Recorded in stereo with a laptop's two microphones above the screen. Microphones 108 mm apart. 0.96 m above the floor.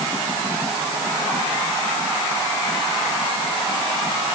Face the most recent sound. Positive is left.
No sound to turn to.